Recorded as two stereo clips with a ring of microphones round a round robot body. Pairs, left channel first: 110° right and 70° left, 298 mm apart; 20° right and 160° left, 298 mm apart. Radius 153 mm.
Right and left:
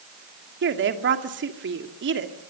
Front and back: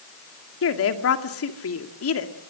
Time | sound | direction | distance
0.6 | a woman speaking | 15° left | 2 m